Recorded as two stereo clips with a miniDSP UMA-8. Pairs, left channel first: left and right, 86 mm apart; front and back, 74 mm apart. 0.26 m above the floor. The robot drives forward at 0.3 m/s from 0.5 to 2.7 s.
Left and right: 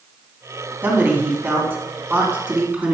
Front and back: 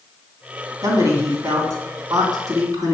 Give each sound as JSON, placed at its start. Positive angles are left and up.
{"t": 0.8, "sound": "a man speaking", "azimuth_deg": -150, "distance_m": 1.9}